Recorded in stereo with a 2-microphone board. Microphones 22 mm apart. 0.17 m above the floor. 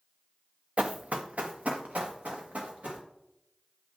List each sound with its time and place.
0.8 s running footsteps: 50° right (ahead or behind), 0.7 m; by 3.0 s 80° right, 3 m